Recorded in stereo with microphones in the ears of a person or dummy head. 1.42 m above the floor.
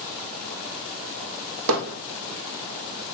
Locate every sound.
1.7 s hammering: 70° right (ahead or behind), 0.6 m